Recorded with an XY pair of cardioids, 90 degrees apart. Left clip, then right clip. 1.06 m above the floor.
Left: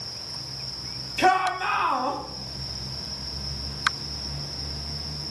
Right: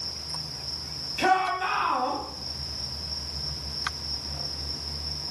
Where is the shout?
45° left, 1.1 m.